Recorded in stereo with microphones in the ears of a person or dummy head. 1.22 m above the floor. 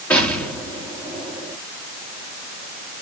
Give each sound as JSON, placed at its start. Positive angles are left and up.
{"t": 0.1, "sound": "an explosion", "side_deg": 10, "distance_m": 3.5}